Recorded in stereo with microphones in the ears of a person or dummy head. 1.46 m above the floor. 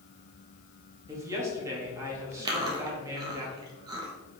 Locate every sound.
1.1 s a woman speaking: 25° right (ahead or behind), 2.5 m
2.5 s chewing: 30° right (ahead or behind), 1.5 m